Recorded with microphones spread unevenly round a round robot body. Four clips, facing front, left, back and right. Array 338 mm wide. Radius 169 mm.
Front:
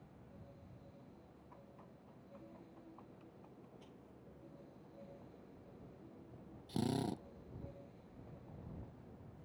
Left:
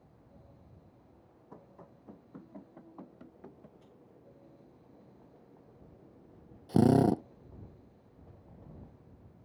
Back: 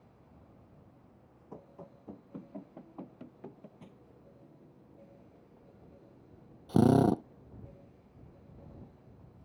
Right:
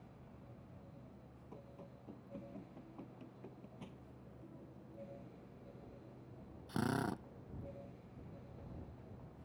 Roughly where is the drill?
Behind left.